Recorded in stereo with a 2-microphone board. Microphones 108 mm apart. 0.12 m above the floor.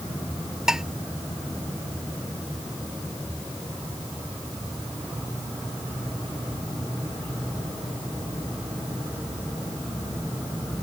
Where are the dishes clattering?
5° right (ahead or behind).